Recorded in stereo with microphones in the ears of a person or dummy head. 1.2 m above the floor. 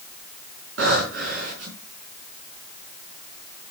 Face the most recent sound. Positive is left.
turn(degrees=-80)